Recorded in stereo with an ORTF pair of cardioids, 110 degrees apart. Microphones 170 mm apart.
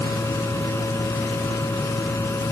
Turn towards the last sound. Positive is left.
turn(degrees=15)